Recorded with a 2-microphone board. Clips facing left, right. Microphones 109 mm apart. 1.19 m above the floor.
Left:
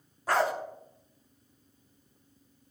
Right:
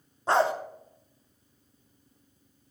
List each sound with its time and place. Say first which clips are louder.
0.3 s a dog barking: right 3 dB; 25° right (ahead or behind), 0.7 m